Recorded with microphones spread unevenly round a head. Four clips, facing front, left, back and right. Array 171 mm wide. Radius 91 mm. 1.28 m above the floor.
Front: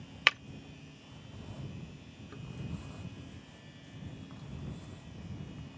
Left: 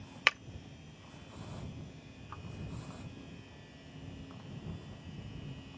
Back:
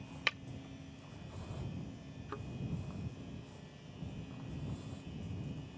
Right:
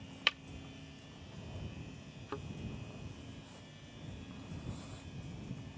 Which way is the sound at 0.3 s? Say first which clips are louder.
Left 6 dB, front 9 dB; 35° left.